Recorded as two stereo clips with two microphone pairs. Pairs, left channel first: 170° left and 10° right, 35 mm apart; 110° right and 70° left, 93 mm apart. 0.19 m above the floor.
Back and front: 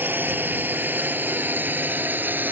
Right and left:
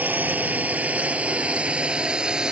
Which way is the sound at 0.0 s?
5° right.